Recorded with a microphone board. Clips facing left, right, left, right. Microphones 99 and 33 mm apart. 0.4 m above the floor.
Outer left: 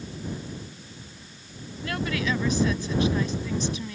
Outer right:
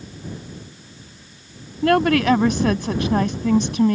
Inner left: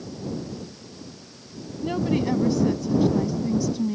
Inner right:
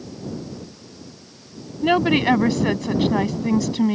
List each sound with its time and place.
1.8 s a woman speaking: 65° right (ahead or behind)